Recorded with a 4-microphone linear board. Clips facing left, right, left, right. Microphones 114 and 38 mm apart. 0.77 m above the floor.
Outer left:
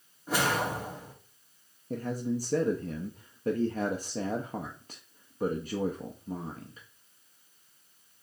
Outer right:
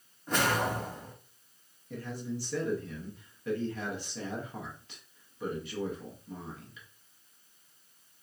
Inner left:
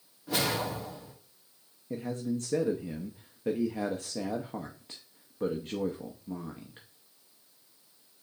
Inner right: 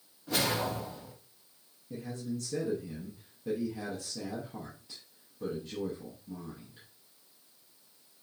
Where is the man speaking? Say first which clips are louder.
Outer left 6 dB, inner left 5 dB; 45° left (ahead or behind), 0.5 m.